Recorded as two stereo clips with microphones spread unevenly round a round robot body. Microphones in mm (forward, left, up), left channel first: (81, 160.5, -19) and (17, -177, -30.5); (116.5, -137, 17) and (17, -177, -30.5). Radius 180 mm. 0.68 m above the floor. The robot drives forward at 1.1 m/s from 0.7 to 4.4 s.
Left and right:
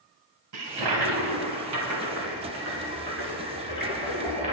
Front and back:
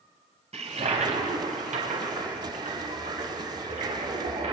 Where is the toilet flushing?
130° right, 1.8 m; by 4.5 s 165° right, 5.5 m.